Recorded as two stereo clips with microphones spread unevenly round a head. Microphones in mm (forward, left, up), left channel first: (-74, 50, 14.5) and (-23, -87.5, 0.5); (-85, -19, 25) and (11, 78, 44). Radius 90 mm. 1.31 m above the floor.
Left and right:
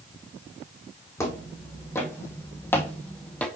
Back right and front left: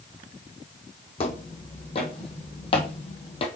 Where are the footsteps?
175° left, 3 m; by 3.5 s straight behind, 1.8 m.